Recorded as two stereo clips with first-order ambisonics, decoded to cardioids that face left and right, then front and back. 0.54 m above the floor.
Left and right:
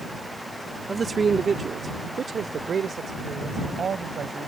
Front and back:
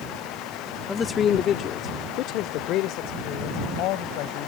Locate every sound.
0.9 s a man speaking: 50° right; by 4.5 s 25° right